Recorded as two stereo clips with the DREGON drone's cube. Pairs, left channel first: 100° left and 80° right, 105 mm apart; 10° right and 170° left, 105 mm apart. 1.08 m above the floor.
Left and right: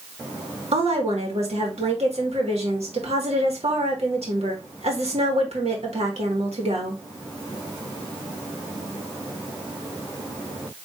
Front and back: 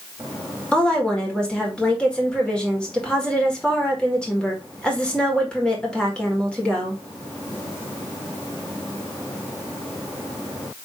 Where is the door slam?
I don't hear a door slam.